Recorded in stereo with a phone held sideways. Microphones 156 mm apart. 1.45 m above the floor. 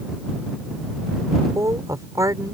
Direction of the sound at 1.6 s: 20° right (ahead or behind).